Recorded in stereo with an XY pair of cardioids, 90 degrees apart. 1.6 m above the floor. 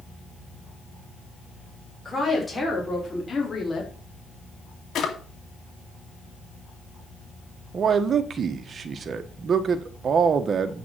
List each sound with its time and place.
2.0 s a woman speaking: 20° left, 6 m; by 3.9 s 35° left, 3.5 m
5.0 s a drawer: 70° left, 2.5 m
7.7 s a man speaking: 55° right, 1.5 m